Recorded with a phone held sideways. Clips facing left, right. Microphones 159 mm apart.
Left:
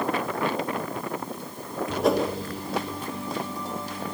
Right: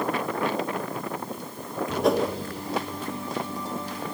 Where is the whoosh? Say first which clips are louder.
Even; centre (ahead or behind), 2 m.